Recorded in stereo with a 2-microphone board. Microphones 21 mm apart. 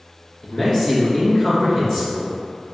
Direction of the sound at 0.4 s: 30° left (ahead or behind).